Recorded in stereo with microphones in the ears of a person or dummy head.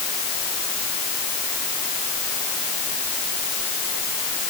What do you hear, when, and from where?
Only background noise.